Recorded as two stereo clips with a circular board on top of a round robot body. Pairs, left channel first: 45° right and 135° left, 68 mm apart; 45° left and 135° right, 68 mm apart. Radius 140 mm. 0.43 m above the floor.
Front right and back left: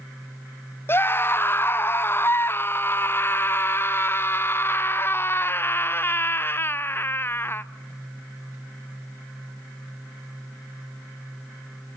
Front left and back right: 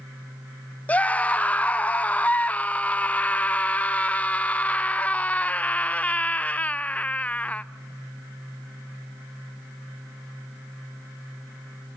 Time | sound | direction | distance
0.9 | a scream | 10° right | 0.9 m